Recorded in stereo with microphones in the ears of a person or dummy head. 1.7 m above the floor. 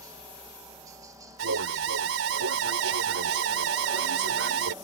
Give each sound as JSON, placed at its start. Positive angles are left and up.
{"t": 0.0, "sound": "a helicopter", "side_deg": -15}
{"t": 1.4, "sound": "an alarm", "side_deg": -75}